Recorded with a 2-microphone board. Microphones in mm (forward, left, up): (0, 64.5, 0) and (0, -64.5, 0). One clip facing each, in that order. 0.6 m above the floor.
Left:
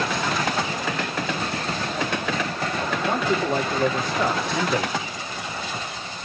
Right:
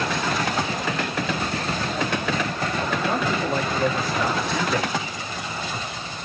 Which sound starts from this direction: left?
A man speaking, at 3.1 s.